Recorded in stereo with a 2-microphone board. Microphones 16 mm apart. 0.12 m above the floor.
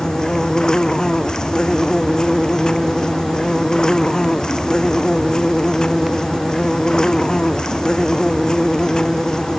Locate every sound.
0.0 s an insect: 45° left (ahead or behind)